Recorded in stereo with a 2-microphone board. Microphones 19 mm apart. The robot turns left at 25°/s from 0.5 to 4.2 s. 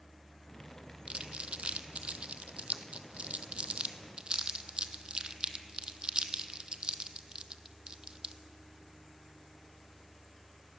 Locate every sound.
1.1 s crumpling: 60° right (ahead or behind), 0.7 m; by 8.3 s 45° right (ahead or behind), 0.7 m